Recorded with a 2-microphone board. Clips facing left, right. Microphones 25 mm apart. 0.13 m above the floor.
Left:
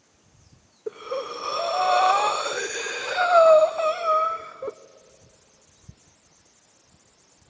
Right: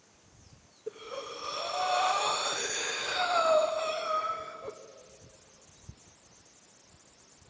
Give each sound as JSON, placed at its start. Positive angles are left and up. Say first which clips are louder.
{"t": 0.9, "sound": "breathing", "louder": "left 9 dB", "side_deg": 70, "distance_m": 1.1}